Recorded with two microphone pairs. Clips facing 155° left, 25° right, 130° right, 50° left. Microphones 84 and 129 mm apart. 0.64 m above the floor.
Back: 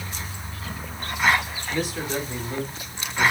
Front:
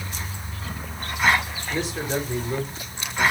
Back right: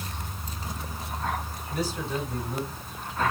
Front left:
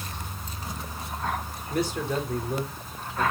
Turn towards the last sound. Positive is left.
turn(degrees=55)